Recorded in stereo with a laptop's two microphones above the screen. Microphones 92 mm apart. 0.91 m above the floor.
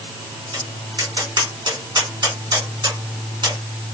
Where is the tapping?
50° right (ahead or behind), 2.5 m.